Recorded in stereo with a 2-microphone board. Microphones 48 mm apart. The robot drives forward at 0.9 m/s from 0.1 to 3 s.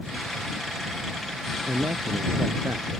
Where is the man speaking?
75° right (ahead or behind); by 3.0 s 65° right (ahead or behind).